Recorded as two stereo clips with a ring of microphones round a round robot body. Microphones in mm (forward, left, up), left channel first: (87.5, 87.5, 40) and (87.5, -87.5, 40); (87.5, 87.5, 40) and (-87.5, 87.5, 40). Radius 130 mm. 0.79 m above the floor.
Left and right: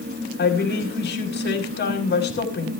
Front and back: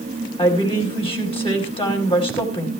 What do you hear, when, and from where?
0.4 s a woman speaking: 60° left, 5 m